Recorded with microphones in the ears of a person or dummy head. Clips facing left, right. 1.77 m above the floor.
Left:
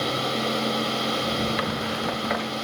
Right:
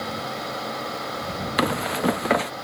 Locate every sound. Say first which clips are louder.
1.6 s running footsteps: right 4 dB; 60° right (ahead or behind)